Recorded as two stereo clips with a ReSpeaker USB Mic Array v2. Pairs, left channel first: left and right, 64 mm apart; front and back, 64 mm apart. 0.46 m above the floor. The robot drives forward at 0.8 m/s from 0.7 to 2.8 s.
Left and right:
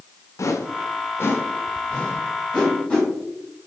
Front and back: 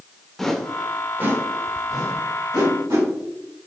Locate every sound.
0.4 s a whoosh: 80° left, 0.5 m; by 3.1 s 165° left, 1.7 m